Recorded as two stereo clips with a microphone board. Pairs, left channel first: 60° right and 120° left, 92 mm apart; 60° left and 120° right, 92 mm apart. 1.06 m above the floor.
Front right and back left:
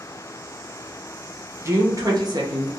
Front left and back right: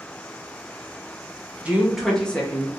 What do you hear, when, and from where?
1.6 s a woman speaking: 170° left, 0.8 m; by 2.8 s 115° left, 0.9 m